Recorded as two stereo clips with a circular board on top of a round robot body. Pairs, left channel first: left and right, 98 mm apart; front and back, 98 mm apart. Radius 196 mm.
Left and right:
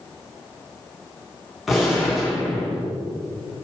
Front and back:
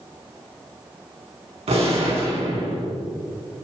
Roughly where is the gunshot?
Behind.